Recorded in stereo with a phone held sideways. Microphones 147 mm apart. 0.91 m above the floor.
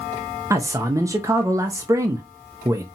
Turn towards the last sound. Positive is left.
turn(degrees=-20)  # may be behind; listen again after turning